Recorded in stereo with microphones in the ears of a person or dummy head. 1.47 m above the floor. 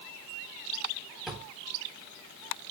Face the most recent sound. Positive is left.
turn(degrees=0)  # may be behind; listen again after turning